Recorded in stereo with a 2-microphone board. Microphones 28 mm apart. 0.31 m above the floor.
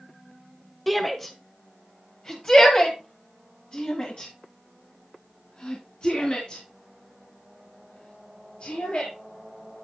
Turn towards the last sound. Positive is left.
turn(degrees=55)  # may be behind; listen again after turning